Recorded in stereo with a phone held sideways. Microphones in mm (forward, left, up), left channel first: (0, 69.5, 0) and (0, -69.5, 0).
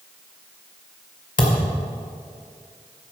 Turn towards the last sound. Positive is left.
turn(degrees=70)  # may be behind; listen again after turning